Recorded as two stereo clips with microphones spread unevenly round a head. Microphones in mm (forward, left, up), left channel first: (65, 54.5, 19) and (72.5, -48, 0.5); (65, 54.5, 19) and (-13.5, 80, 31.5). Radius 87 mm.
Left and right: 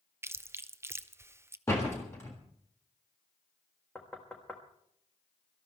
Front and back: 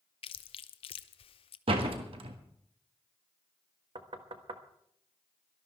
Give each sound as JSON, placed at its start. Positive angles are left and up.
{"t": 0.2, "sound": "chewing", "azimuth_deg": -15, "distance_m": 0.7}
{"t": 1.7, "sound": "a door slam", "azimuth_deg": 170, "distance_m": 1.6}
{"t": 4.0, "sound": "knocking", "azimuth_deg": 170, "distance_m": 1.1}